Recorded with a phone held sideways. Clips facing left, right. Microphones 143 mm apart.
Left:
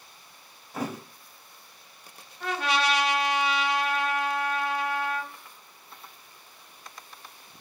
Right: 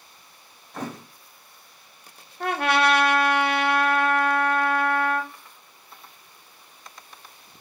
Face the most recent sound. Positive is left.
turn(degrees=-55)  # may be behind; listen again after turning